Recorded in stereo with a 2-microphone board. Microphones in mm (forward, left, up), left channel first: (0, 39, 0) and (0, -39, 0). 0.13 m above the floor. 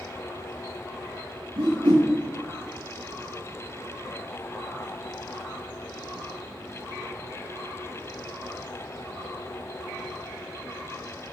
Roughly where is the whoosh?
Right.